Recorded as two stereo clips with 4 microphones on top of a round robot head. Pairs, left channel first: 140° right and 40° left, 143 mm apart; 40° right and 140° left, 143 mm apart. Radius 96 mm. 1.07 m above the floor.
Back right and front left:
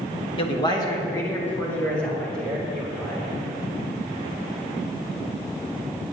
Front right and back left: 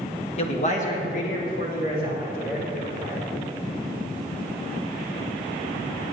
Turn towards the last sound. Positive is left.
turn(degrees=-50)